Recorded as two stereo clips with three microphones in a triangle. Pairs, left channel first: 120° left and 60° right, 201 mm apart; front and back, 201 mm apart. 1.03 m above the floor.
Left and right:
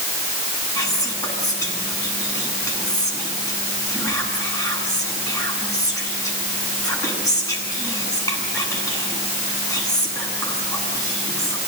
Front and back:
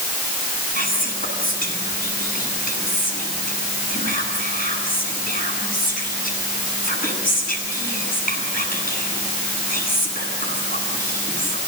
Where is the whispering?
45° left, 9 m.